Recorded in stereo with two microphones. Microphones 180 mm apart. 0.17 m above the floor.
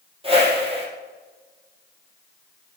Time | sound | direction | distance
0.2 | a whoosh | 30° right (ahead or behind) | 3 m